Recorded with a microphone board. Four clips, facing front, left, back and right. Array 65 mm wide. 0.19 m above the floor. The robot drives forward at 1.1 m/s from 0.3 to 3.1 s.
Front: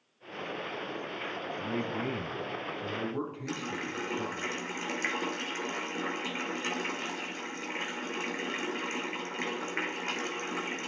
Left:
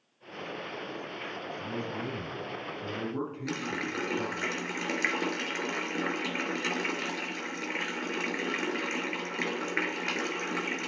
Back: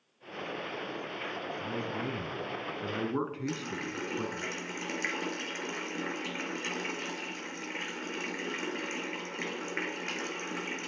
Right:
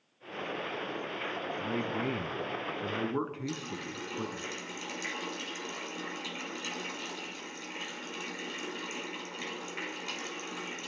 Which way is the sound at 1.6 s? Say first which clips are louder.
Right 3 dB, front 4 dB; 45° right.